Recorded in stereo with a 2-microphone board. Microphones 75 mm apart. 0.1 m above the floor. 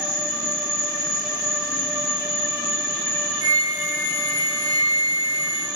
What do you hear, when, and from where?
0.0 s an insect: 15° right (ahead or behind), 2 m
3.4 s a flute: 55° right (ahead or behind), 0.9 m